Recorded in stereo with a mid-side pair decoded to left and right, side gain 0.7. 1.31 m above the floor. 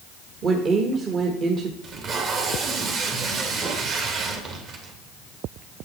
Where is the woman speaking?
40° right, 1.4 m.